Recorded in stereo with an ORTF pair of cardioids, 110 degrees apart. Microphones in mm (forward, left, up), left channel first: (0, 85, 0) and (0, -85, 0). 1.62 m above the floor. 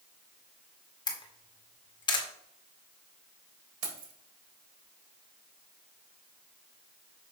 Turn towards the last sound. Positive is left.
turn(degrees=-60)